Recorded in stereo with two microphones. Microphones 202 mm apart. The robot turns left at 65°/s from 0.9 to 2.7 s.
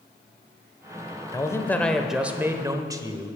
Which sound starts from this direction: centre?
A man speaking, at 1.3 s.